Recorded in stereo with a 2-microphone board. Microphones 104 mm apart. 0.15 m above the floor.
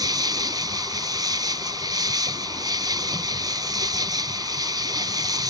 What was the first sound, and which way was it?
An insect, 40° right (ahead or behind).